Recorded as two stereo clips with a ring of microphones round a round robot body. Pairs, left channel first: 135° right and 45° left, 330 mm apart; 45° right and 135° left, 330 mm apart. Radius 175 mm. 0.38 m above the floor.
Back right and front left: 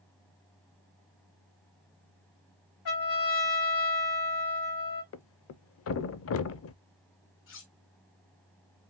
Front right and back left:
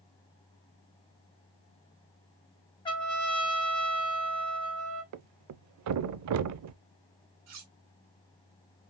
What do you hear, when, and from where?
2.9 s a trumpet: 120° right, 3 m
5.1 s a thud: 175° left, 0.5 m
7.5 s cutlery clinking: 175° left, 1.4 m